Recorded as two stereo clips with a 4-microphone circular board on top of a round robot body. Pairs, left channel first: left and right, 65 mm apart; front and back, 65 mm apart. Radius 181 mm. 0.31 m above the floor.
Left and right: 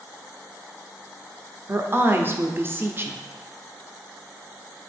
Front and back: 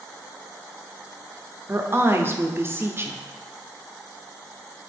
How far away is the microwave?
I don't hear a microwave.